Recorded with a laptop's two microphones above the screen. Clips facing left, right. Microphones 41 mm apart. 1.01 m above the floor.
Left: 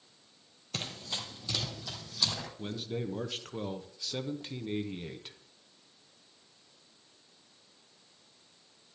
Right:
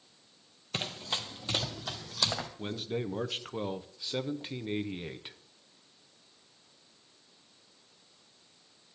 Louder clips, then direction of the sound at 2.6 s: Left 1 dB; 20° right (ahead or behind).